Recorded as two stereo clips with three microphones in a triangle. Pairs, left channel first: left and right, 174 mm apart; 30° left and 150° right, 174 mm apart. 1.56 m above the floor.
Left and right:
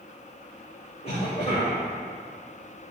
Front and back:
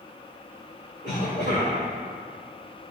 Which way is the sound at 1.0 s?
35° left.